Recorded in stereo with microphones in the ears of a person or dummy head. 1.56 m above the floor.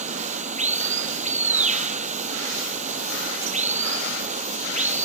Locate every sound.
0.0 s running water: 30° right (ahead or behind)